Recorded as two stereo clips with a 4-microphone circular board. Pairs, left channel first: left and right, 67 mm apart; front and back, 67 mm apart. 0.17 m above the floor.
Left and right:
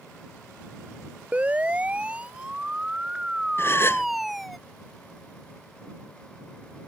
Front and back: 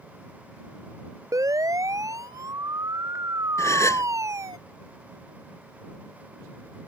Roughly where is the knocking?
I don't hear knocking.